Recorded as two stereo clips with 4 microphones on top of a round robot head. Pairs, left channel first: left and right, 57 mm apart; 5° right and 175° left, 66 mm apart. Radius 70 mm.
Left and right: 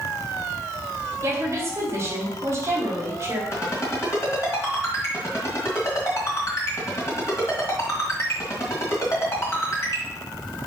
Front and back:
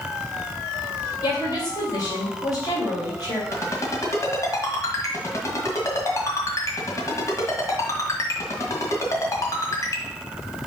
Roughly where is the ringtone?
Ahead left.